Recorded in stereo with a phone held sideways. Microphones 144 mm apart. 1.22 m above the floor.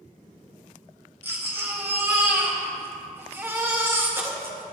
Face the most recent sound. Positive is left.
turn(degrees=-15)  # may be behind; listen again after turning